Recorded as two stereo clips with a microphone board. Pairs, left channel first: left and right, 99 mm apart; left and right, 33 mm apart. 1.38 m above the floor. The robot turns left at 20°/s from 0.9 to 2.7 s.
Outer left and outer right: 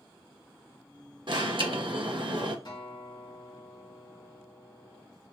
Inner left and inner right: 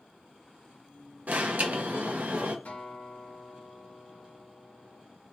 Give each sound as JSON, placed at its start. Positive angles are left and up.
{"t": 1.3, "sound": "an alarm", "side_deg": -55, "distance_m": 0.7}
{"t": 2.6, "sound": "a guitar", "side_deg": 50, "distance_m": 1.6}